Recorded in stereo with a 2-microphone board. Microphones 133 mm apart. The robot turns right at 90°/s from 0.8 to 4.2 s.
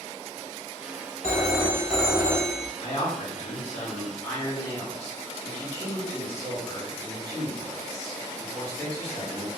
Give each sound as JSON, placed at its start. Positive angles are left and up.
{"t": 1.2, "sound": "a phone ringing", "azimuth_deg": 130, "distance_m": 0.6}
{"t": 2.8, "sound": "a man speaking", "azimuth_deg": 30, "distance_m": 2.0}